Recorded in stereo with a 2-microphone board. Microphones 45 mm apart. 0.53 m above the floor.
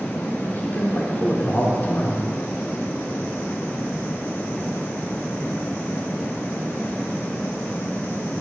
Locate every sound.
0.4 s a man speaking: 40° left (ahead or behind), 1.6 m